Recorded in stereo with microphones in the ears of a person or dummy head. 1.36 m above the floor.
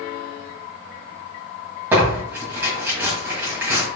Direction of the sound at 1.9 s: 10° right (ahead or behind).